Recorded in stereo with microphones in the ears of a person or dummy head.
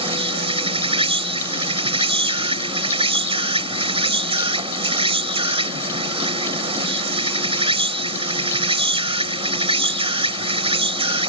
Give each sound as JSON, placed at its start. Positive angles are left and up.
{"t": 0.0, "sound": "an insect", "side_deg": -25}